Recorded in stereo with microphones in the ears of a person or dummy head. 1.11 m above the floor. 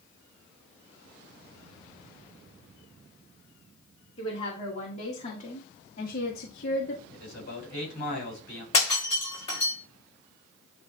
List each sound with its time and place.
4.2 s a woman speaking: 30° left (ahead or behind), 2.5 m; by 7.0 s 60° left (ahead or behind), 1.3 m
7.1 s a man speaking: 50° left (ahead or behind), 4.5 m
8.7 s breaking glass: 35° left (ahead or behind), 5.5 m